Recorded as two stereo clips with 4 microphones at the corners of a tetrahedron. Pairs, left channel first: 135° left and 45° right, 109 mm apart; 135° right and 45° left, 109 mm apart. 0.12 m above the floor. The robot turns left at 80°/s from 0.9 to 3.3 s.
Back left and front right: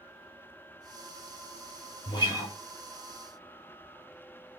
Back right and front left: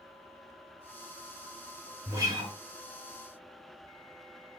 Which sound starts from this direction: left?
A guitar, at 2.1 s.